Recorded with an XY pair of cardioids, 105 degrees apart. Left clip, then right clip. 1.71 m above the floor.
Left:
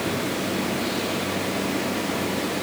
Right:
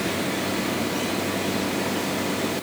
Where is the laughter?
I don't hear laughter.